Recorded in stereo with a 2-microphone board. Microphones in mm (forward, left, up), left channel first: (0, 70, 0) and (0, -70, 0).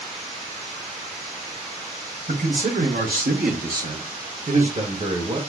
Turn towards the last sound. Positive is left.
turn(degrees=-40)  # may be behind; listen again after turning